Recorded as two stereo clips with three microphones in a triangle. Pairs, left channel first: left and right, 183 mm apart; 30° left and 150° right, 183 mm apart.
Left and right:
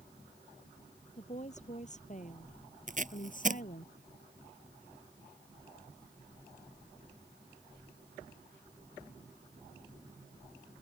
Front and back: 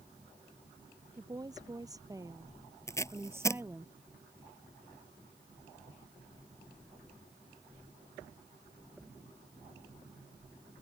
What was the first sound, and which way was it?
A woman speaking, 140° left.